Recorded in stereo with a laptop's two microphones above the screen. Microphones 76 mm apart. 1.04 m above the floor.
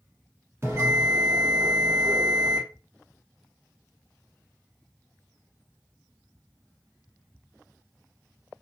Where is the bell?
35° right (ahead or behind), 1.4 m.